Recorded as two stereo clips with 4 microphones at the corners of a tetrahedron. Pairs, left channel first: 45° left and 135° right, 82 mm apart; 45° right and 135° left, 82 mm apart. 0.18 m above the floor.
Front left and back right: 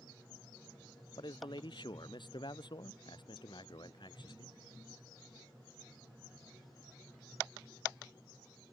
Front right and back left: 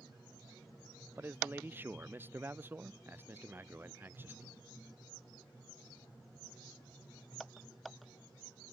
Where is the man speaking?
70° left.